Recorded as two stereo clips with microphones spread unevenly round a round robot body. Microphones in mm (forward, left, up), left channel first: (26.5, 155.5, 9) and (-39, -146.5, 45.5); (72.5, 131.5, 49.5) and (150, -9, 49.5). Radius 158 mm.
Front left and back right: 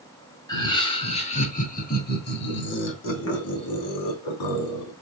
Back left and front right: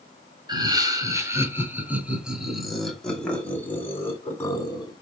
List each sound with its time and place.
0.5 s laughter: straight ahead, 3 m; by 4.9 s 50° left, 3.5 m